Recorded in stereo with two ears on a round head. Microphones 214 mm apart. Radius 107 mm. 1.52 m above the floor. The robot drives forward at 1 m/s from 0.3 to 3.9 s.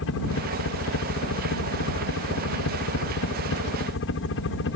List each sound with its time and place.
0.0 s a helicopter: 60° left (ahead or behind); by 4.8 s 55° left (ahead or behind)